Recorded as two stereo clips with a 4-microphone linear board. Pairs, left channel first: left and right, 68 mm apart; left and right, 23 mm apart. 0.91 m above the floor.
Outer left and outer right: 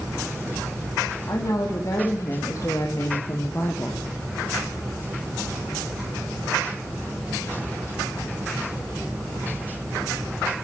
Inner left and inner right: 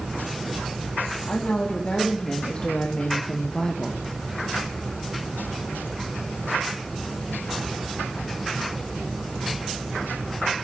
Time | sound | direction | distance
1.3 | a woman speaking | 55° left (ahead or behind) | 1.9 m